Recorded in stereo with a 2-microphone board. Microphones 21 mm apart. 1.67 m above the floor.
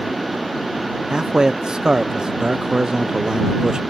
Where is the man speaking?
40° right (ahead or behind).